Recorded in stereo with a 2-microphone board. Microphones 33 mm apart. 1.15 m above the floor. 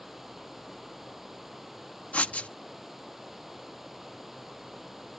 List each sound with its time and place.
0.0 s running water: 5° right (ahead or behind)
2.1 s writing: 45° left (ahead or behind)